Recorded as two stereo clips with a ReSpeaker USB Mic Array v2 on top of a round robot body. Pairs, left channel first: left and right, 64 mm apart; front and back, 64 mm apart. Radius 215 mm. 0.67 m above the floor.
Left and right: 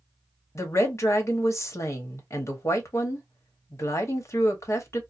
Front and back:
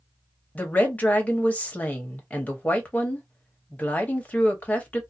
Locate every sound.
0.6 s a woman speaking: 60° left, 1.2 m